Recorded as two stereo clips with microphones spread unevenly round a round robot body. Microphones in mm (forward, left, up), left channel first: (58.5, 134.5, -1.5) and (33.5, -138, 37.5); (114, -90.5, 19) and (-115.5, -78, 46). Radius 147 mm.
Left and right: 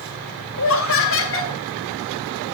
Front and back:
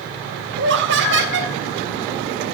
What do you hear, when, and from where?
0.6 s laughter: 125° left, 2.0 m